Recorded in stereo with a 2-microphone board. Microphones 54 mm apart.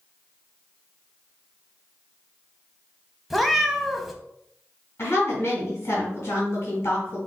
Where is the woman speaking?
45° left (ahead or behind), 2.5 m.